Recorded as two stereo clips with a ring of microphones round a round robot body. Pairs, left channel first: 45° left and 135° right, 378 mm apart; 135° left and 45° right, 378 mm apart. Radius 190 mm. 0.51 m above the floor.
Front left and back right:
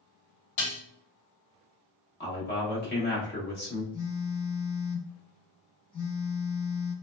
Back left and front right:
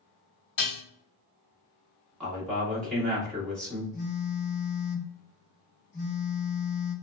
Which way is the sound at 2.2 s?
50° left.